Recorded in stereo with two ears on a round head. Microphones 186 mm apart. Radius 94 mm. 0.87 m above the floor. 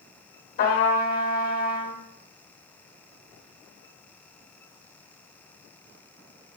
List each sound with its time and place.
0.6 s a trumpet: 35° left (ahead or behind), 0.7 m